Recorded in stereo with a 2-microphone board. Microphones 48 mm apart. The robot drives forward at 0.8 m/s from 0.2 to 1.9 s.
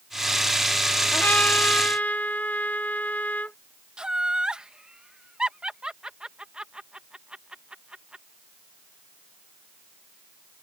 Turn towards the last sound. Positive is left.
turn(degrees=-15)  # may be behind; listen again after turning